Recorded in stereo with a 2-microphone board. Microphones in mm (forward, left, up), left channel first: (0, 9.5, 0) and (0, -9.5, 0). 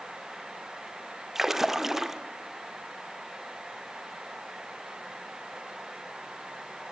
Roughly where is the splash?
Centre.